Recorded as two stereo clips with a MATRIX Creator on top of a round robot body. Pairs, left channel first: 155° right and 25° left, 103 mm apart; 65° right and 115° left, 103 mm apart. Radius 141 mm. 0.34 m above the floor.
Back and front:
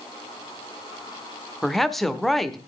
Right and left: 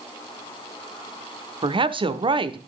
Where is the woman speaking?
115° left, 1.2 m.